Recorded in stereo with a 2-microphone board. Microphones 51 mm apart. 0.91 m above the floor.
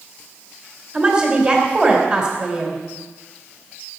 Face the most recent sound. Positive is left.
turn(degrees=-35)  # may be behind; listen again after turning